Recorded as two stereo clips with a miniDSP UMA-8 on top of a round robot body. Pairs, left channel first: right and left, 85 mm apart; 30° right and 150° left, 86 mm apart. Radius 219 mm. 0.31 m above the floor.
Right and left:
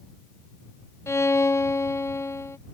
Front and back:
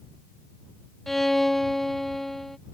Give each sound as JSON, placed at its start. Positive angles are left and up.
{"t": 1.1, "sound": "a violin", "azimuth_deg": -115}